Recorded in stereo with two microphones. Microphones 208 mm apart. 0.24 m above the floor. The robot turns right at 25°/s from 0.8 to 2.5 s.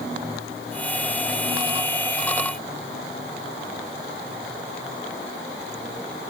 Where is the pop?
I don't hear a pop.